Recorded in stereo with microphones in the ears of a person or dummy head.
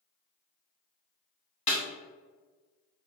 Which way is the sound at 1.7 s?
30° left (ahead or behind).